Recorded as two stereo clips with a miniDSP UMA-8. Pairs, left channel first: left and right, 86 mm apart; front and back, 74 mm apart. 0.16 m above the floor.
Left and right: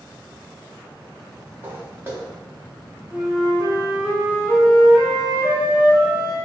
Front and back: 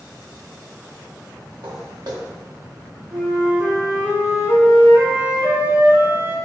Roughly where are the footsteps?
Behind right.